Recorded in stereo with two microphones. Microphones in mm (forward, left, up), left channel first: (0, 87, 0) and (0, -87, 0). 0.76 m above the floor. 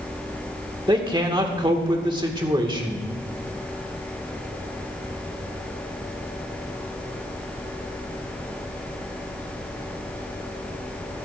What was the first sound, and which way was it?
A man speaking, 25° right (ahead or behind).